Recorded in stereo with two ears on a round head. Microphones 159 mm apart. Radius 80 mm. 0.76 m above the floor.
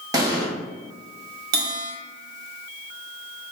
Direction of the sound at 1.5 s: 55° right (ahead or behind).